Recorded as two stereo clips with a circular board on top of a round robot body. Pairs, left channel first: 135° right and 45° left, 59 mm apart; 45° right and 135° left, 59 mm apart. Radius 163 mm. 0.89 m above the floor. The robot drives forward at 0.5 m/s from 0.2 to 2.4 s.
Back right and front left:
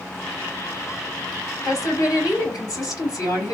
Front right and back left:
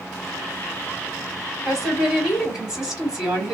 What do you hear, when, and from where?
1.6 s a woman speaking: 145° right, 2.5 m; by 3.5 s 150° right, 2.5 m